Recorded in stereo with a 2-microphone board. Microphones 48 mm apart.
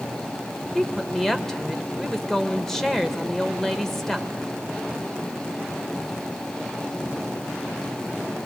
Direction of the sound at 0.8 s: 5° left (ahead or behind).